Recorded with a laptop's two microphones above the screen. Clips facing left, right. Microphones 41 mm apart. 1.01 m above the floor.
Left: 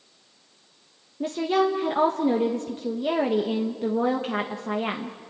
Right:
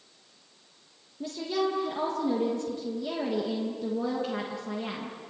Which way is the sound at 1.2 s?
50° left (ahead or behind).